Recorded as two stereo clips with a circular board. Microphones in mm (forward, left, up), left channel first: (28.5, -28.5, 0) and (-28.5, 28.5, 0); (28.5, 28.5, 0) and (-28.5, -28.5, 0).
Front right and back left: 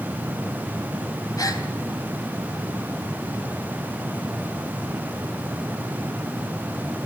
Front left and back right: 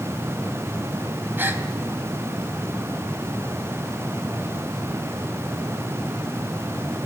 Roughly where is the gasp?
Right.